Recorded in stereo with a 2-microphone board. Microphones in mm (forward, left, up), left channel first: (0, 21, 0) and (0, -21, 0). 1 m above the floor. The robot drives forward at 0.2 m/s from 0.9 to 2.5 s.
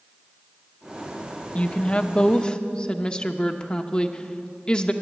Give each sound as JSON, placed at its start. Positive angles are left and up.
{"t": 1.6, "sound": "a woman speaking", "side_deg": 30, "distance_m": 0.6}